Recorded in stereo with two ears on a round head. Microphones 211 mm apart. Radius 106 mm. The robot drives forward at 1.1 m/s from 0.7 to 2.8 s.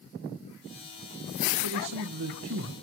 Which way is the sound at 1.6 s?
80° right.